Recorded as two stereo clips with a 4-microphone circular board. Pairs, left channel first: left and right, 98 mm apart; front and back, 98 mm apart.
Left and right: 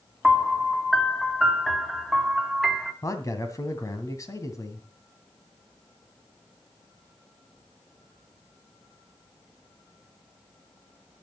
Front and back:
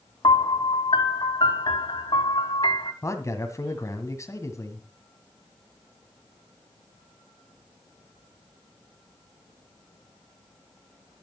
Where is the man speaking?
45° left, 2 m.